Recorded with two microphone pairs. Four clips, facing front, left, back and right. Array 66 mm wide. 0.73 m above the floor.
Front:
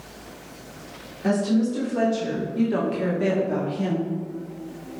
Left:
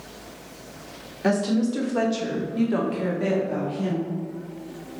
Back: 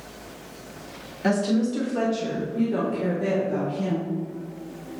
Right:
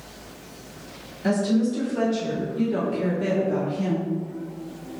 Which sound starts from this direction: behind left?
A woman speaking, at 1.2 s.